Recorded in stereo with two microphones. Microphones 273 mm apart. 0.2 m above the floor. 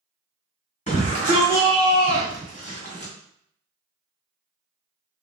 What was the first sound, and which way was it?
A shout, 25° left (ahead or behind).